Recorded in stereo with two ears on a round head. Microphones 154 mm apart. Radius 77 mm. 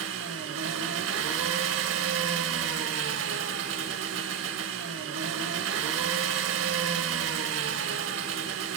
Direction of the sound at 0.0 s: 80° right.